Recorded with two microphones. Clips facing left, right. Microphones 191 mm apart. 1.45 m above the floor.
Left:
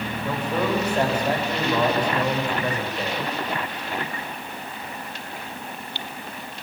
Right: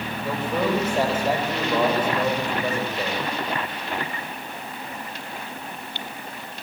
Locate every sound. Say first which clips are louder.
0.2 s a man speaking: right 1 dB; 5° right (ahead or behind), 7.5 m